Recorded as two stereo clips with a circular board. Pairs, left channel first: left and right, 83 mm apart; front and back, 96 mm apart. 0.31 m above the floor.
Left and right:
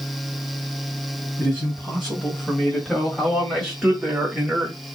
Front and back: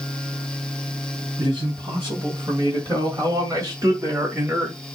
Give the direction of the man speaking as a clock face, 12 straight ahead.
7 o'clock.